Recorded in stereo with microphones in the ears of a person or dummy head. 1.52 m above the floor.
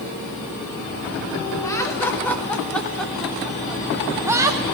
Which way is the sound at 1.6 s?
20° left (ahead or behind).